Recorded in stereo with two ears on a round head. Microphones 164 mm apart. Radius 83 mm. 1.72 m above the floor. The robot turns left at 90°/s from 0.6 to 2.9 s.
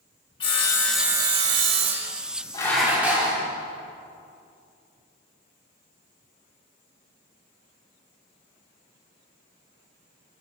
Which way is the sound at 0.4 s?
30° left.